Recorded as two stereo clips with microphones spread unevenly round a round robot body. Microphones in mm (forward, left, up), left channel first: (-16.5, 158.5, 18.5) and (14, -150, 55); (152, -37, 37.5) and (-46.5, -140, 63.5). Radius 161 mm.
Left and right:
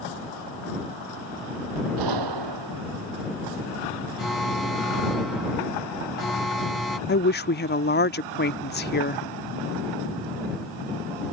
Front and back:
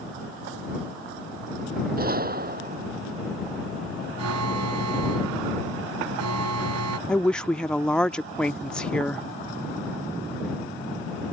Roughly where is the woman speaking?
Left.